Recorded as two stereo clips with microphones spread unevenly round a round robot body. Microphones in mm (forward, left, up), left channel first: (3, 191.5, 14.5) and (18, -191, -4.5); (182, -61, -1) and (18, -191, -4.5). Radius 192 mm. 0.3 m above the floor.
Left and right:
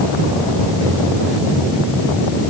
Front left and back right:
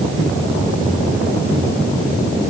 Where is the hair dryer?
I don't hear a hair dryer.